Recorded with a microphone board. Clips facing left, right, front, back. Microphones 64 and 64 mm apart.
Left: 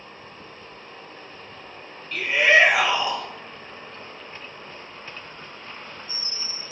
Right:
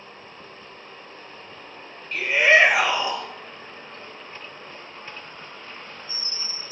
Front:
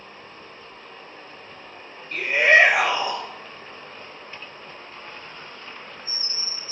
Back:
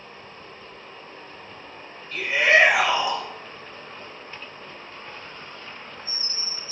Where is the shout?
25° right, 2 m.